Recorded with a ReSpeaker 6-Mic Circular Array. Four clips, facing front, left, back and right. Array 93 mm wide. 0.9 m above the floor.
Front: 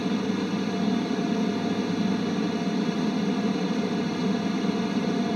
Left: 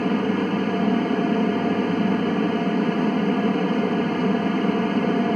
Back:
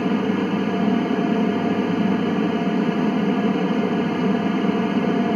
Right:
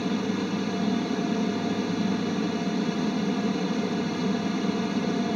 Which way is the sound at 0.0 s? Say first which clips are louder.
Left 6 dB, back 6 dB; 135° left.